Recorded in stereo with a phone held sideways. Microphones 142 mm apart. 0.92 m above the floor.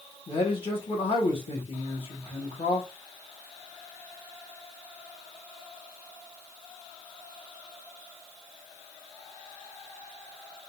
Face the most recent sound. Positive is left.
turn(degrees=45)  # may be behind; listen again after turning